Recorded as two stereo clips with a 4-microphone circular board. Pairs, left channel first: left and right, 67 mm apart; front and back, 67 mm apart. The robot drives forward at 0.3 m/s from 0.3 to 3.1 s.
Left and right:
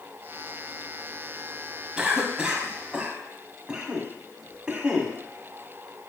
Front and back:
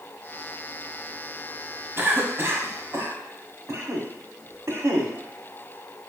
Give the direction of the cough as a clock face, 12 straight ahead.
5 o'clock.